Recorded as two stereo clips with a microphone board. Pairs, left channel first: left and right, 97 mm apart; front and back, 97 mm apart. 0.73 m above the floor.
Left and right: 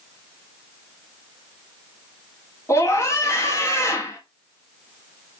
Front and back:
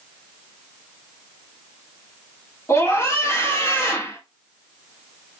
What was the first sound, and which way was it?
A scream, 45° left.